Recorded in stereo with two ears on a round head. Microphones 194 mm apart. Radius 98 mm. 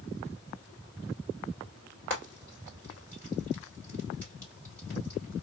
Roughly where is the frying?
Centre.